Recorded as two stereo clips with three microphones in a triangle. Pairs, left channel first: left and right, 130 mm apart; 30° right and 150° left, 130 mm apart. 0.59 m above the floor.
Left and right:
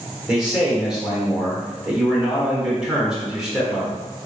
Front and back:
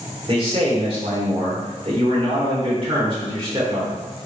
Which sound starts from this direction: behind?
A man speaking, at 0.3 s.